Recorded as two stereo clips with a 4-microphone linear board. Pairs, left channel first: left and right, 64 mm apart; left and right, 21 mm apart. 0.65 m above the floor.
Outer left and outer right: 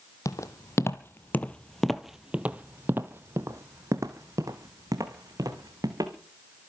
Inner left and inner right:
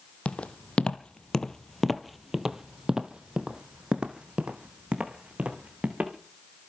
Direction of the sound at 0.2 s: 55° left (ahead or behind).